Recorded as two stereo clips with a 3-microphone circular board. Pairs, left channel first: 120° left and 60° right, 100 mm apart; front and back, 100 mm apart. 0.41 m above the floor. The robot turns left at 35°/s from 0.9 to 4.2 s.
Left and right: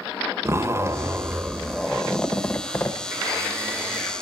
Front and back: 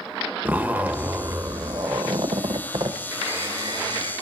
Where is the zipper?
110° right, 1.1 m; by 3.0 s 175° left, 1.1 m.